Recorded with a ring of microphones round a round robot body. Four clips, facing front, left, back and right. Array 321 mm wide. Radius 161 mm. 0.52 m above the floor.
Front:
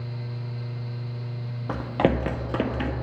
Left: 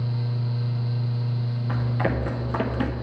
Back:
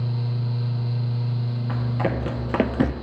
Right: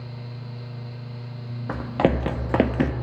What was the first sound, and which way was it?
Running footsteps, 45° right.